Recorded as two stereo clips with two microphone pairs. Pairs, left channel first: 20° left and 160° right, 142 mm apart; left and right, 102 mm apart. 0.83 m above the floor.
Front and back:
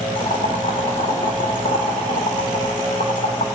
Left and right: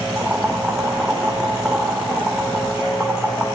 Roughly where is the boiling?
Ahead.